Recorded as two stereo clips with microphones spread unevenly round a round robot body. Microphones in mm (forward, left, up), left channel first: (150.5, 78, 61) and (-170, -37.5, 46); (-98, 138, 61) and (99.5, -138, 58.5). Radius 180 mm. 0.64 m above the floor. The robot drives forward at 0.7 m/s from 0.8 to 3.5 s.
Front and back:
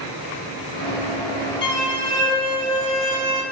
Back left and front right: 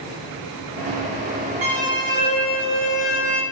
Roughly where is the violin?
Ahead right.